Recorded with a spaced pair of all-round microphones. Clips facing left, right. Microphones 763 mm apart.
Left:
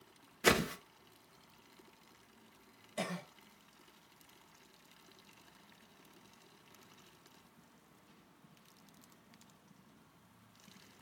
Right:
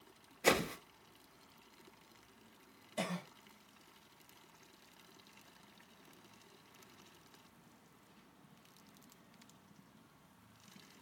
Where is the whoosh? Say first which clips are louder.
Left 1 dB; 50° left (ahead or behind), 0.6 m.